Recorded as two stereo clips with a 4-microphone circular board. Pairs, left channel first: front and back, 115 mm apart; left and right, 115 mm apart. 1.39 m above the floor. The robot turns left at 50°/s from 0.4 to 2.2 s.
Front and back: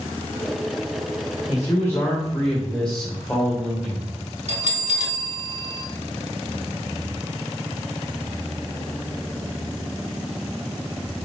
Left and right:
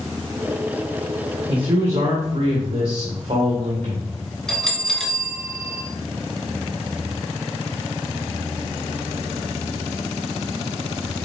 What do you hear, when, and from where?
1.5 s a man speaking: 50° right, 1.5 m; by 4.1 s 85° right, 1.5 m
4.5 s a bell: 175° left, 1.3 m